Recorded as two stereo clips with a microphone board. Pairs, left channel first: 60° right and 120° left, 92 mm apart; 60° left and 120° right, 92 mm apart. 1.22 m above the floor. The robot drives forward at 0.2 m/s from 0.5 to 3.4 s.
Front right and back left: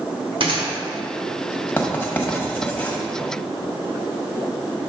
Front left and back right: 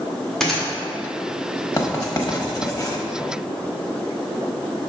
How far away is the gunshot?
About 1.3 m.